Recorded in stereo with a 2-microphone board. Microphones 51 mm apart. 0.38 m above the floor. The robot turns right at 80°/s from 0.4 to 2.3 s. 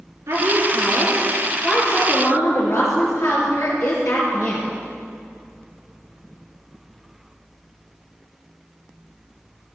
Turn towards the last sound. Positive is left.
turn(degrees=70)